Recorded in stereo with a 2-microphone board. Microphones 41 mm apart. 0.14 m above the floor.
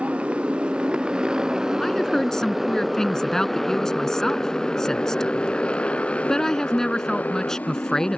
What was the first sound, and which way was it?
A motorcycle, 30° right (ahead or behind).